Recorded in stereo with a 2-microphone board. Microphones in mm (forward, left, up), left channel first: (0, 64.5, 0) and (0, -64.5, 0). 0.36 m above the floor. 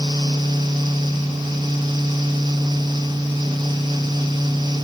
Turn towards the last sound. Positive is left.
No sound to turn to.